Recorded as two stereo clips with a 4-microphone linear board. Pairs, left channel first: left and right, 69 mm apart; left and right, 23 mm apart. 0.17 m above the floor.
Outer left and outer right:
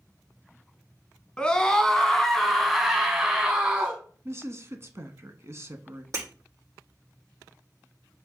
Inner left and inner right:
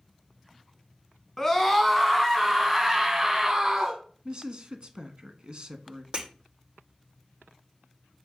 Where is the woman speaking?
40° right (ahead or behind), 1.3 m.